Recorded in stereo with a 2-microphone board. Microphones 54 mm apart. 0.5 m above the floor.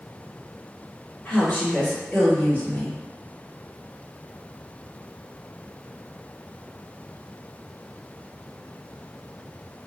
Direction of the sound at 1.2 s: 35° left (ahead or behind).